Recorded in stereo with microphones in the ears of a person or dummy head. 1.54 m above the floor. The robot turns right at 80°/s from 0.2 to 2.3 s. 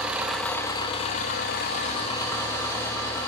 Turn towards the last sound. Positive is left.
turn(degrees=160)